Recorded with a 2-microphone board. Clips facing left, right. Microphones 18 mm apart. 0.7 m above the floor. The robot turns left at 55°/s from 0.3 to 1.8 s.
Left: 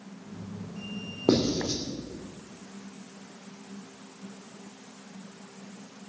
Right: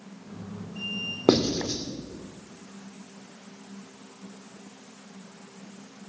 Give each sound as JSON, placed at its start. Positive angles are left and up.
{"t": 1.3, "sound": "writing", "side_deg": -50, "distance_m": 2.5}